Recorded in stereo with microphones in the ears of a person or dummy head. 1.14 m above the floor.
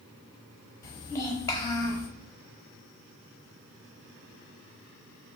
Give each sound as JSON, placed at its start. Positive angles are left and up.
{"t": 0.8, "sound": "a child speaking", "side_deg": 20, "distance_m": 0.9}